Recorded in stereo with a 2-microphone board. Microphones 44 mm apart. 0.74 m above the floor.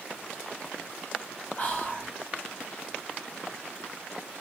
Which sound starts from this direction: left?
Whispering, at 1.6 s.